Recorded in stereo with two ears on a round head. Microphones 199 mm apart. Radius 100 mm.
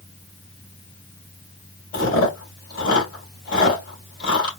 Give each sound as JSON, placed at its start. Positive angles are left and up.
{"t": 1.9, "sound": "chewing", "side_deg": 45, "distance_m": 2.5}